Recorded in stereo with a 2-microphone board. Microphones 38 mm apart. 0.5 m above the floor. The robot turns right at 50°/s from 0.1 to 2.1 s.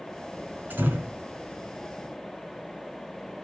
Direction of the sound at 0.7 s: 55° right (ahead or behind).